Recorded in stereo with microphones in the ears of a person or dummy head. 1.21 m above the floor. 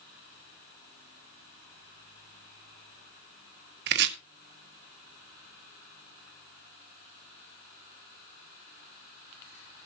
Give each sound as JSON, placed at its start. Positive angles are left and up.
{"t": 3.9, "sound": "chopping", "side_deg": -55, "distance_m": 1.4}